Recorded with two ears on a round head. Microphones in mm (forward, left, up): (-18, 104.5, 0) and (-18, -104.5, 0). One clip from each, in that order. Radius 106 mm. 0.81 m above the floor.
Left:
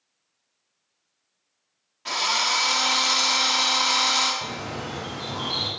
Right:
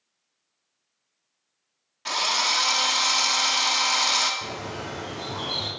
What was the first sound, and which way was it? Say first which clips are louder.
A drill: even; 20° right (ahead or behind).